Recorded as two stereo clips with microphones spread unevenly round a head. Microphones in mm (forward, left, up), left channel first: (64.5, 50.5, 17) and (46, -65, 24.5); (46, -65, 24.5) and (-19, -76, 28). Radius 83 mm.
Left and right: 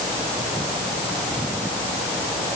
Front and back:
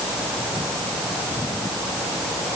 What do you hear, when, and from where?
Only background noise.